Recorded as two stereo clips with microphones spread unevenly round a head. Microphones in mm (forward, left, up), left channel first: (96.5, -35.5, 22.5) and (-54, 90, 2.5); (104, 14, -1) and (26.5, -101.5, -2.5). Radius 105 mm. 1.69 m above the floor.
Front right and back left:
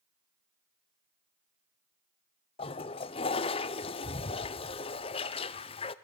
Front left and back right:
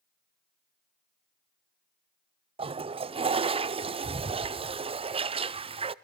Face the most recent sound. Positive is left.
turn(degrees=-90)